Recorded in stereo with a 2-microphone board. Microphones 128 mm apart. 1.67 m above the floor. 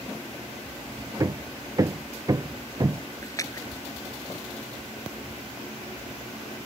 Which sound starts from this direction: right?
Hammering, at 1.2 s.